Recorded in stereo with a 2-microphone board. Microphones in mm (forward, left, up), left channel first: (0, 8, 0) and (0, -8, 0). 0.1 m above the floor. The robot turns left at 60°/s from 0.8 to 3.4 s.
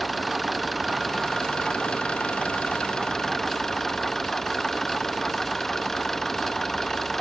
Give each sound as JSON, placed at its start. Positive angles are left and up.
{"t": 0.0, "sound": "an engine running", "azimuth_deg": 170}